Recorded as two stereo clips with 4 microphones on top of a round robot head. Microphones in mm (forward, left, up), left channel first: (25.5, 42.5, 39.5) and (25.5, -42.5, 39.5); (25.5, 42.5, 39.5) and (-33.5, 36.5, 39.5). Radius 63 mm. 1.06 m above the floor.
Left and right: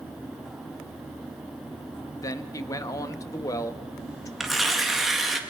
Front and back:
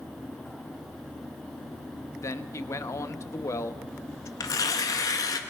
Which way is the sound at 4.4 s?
Straight ahead.